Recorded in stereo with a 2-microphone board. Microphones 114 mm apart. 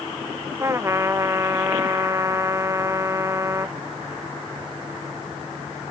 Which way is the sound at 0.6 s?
25° right (ahead or behind).